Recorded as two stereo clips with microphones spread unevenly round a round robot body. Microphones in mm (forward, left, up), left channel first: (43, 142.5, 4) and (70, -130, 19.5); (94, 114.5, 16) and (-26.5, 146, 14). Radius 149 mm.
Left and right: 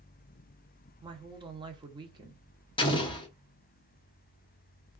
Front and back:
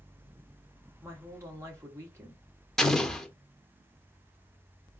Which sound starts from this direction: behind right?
A woman speaking, at 1.0 s.